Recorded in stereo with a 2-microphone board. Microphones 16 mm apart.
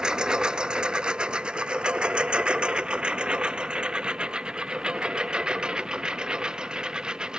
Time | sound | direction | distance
0.0 | a lawn mower | 50° right (ahead or behind) | ?